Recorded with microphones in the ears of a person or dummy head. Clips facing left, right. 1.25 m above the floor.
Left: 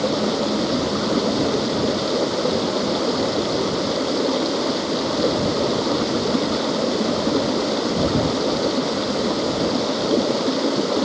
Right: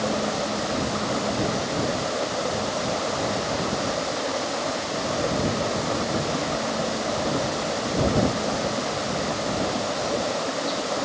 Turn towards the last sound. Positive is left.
turn(degrees=50)  # may be behind; listen again after turning